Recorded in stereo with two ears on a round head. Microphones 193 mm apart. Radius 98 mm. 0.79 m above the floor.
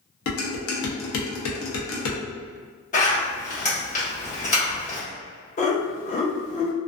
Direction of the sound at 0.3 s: 70° left (ahead or behind).